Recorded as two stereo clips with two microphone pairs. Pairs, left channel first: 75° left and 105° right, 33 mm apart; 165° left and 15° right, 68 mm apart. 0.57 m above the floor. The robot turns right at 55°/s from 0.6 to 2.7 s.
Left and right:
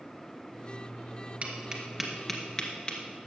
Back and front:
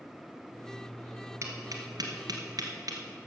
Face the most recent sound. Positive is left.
turn(degrees=10)